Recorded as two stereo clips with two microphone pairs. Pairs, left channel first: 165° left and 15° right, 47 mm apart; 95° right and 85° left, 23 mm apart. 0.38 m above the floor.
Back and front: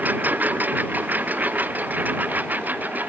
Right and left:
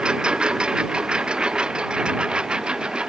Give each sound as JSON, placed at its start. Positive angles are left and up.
{"t": 0.0, "sound": "a lawn mower", "azimuth_deg": 35}